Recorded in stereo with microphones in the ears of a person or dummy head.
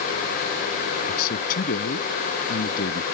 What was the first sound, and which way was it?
A man speaking, 50° left (ahead or behind).